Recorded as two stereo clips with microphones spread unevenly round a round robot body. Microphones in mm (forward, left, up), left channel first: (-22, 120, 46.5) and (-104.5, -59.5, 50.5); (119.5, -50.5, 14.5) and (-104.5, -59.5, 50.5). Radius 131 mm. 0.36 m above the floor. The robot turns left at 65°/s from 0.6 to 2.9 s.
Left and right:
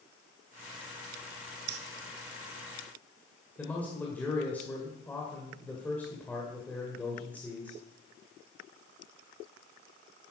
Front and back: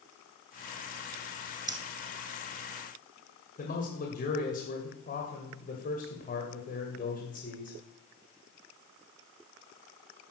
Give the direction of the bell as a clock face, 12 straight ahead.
I don't hear a bell.